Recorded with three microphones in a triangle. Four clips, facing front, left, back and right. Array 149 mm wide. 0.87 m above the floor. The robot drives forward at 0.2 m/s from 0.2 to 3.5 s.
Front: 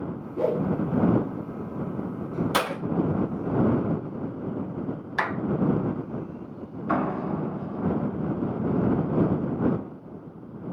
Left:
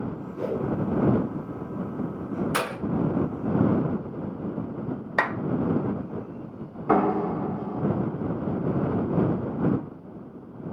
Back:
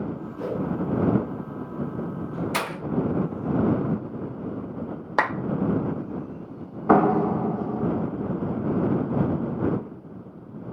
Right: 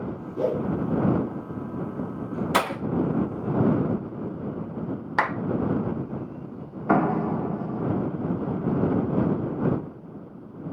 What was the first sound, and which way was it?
A whoosh, 40° right.